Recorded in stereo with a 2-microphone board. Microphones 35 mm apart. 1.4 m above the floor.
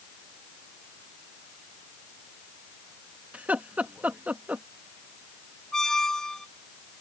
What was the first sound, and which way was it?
Laughter, 45° right (ahead or behind).